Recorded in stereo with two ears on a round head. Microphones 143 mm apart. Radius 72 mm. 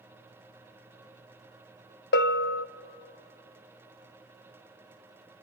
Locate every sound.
2.1 s a bell: 70° left (ahead or behind), 0.6 m